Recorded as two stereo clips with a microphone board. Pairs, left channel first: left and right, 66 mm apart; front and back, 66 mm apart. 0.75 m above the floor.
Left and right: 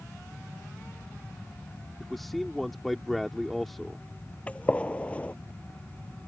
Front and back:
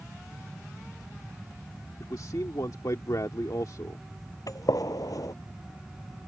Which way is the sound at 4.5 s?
20° left.